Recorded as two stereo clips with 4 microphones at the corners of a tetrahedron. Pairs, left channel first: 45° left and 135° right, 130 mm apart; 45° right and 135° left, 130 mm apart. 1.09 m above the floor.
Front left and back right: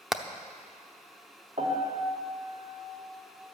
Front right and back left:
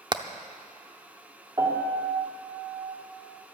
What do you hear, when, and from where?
0.1 s hammering: 140° left, 0.7 m
1.6 s a piano: 165° right, 2.5 m